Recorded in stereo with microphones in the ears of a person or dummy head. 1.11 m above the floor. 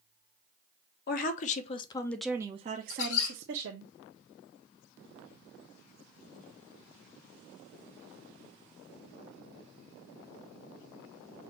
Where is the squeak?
70° left (ahead or behind), 3 m.